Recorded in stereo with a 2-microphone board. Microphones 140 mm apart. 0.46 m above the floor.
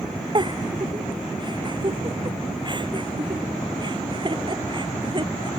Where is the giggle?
35° right (ahead or behind).